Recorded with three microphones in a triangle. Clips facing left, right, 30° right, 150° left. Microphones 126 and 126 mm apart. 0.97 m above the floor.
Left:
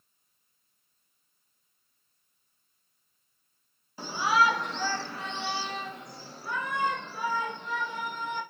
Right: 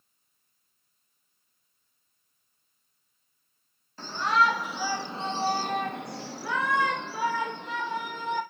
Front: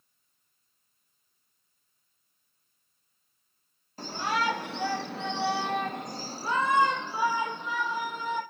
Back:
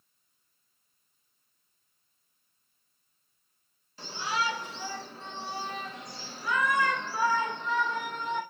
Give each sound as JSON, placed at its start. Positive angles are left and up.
{"t": 4.0, "sound": "a shout", "azimuth_deg": 10, "distance_m": 1.6}